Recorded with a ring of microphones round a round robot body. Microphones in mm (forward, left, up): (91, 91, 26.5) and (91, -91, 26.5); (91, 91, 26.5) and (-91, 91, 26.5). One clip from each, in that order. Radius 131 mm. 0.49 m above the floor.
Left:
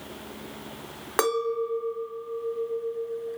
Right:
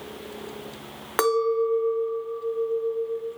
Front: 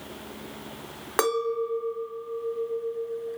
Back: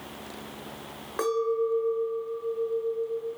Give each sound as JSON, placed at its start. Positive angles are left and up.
{"t": 1.2, "sound": "a clink", "azimuth_deg": -10, "distance_m": 0.9}